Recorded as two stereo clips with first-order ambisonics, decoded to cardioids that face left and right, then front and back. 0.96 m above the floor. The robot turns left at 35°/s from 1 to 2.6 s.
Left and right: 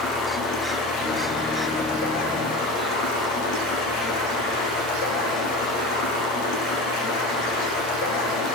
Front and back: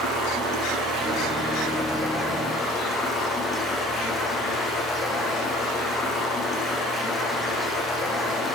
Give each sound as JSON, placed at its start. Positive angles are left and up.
{"t": 0.0, "sound": "running water", "azimuth_deg": 125, "distance_m": 9.5}